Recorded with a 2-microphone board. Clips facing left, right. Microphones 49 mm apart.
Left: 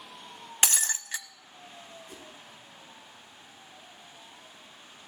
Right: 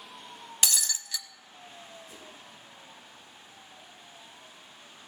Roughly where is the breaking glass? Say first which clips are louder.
Left 2 dB; left.